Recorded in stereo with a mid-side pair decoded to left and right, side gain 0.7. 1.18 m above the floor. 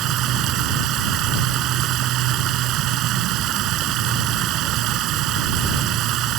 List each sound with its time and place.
0.0 s running water: 55° right